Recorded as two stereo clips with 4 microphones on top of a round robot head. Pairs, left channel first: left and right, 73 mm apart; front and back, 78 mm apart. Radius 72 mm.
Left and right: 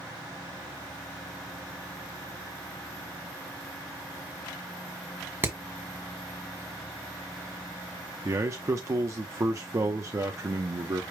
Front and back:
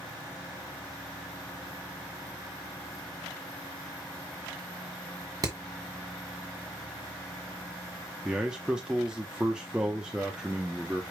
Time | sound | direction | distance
5.4 | hammering | 145° right | 1.6 m
8.2 | a man speaking | 105° right | 0.7 m